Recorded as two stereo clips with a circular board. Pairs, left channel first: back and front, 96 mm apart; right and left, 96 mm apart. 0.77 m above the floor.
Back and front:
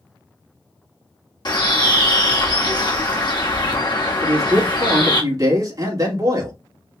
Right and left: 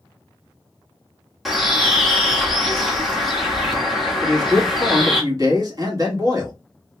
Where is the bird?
Straight behind, 1.3 m.